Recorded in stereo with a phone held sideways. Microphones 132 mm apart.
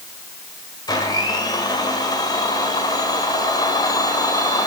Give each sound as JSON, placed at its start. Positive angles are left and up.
{"t": 0.9, "sound": "a blender", "side_deg": 30, "distance_m": 2.5}